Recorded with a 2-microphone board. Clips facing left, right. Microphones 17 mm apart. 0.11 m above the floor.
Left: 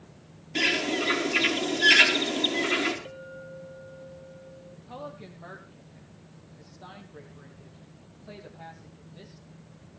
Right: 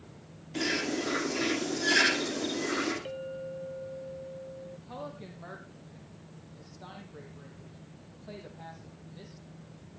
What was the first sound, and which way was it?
A bird, 60° left (ahead or behind).